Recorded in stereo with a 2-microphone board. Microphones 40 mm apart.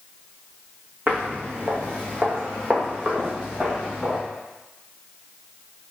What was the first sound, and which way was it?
Footsteps, 45° right (ahead or behind).